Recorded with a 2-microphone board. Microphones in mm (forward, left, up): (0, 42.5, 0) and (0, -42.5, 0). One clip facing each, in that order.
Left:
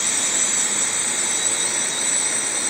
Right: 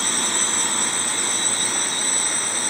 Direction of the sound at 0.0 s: 50° right (ahead or behind).